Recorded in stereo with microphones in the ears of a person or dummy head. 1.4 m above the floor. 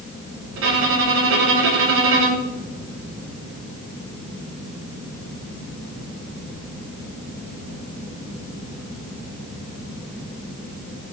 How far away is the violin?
About 0.7 m.